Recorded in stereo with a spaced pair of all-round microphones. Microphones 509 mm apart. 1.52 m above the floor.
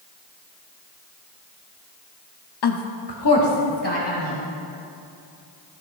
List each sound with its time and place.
2.6 s a woman speaking: 50° left (ahead or behind), 0.5 m